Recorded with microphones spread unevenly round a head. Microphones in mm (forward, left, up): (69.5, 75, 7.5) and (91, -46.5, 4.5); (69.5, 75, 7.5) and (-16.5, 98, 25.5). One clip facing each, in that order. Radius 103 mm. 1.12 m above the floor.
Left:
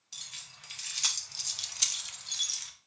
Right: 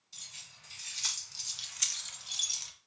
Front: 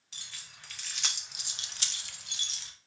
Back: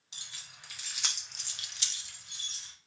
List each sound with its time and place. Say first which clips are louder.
0.1 s keys jangling: left 4 dB, front 1 dB; 95° left, 1.3 m; by 2.7 s 20° right, 0.7 m